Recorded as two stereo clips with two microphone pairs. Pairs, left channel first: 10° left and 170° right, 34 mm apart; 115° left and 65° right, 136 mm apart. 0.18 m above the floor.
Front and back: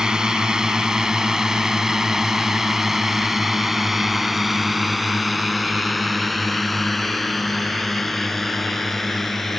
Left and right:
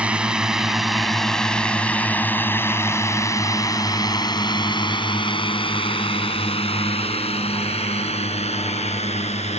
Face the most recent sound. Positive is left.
turn(degrees=90)